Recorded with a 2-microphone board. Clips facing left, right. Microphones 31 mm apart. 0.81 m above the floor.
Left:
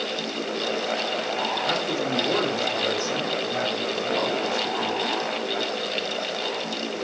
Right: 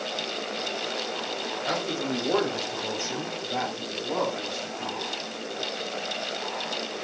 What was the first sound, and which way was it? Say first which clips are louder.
A man speaking: left 3 dB; 5° left (ahead or behind).